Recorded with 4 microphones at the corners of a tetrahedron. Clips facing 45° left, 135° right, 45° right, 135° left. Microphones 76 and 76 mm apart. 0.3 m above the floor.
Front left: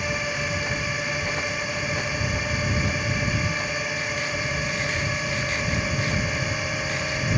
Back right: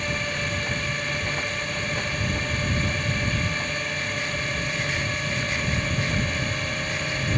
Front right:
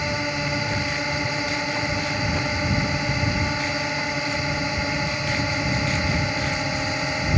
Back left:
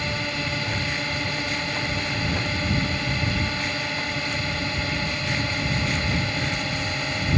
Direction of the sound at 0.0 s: 15° right.